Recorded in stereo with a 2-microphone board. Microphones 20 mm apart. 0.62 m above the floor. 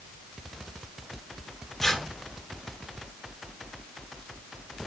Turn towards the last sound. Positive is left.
turn(degrees=20)  # may be behind; listen again after turning